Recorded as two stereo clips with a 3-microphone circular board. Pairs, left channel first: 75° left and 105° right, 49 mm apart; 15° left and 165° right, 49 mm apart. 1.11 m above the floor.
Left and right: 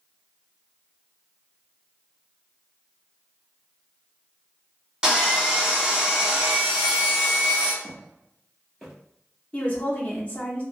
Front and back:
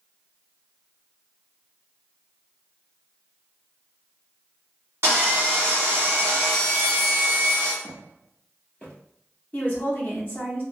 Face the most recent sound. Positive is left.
turn(degrees=30)